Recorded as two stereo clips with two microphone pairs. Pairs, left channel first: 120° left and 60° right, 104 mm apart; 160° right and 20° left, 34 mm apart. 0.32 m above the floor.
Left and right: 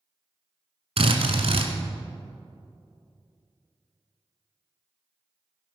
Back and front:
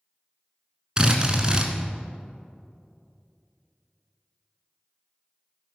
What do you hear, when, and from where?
1.0 s a drill: 45° right, 1.5 m